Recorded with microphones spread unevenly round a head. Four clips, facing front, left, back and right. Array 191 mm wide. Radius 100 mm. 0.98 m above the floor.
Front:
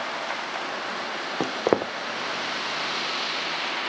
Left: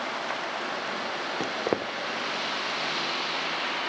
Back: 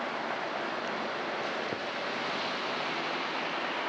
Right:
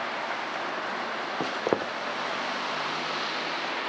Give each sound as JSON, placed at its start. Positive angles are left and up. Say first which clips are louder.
{"t": 1.4, "sound": "footsteps", "louder": "right 2 dB, front 10 dB", "azimuth_deg": -5}